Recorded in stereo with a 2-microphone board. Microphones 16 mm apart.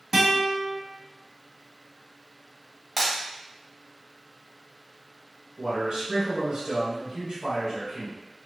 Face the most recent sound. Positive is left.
turn(degrees=-50)  # may be behind; listen again after turning